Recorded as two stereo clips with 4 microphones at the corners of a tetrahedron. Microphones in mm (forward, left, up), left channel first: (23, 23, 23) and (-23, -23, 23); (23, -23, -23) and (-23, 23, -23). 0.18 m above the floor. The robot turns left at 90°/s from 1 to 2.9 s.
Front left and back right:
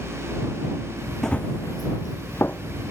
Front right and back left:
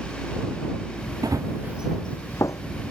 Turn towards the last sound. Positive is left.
turn(degrees=-55)